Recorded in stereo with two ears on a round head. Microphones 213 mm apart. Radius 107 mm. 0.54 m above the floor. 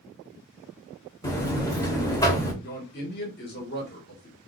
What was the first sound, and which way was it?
A buzzer, 15° left (ahead or behind).